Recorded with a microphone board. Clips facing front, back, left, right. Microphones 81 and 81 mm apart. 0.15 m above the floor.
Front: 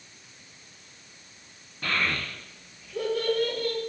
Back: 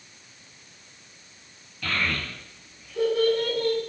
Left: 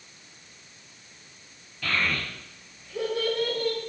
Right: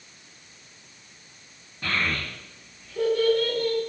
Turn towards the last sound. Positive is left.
turn(degrees=125)